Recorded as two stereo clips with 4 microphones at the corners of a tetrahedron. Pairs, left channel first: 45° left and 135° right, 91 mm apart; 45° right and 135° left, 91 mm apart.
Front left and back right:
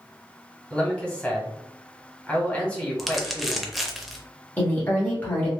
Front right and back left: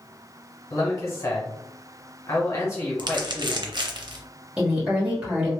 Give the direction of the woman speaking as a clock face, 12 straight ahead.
9 o'clock.